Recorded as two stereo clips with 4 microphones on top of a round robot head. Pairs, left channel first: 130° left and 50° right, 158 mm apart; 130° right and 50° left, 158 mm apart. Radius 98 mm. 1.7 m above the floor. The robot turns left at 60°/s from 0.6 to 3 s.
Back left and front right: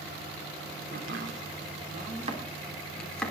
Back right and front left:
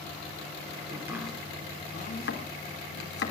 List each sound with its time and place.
0.9 s chopping: 20° right, 3 m; by 3.3 s 145° right, 3 m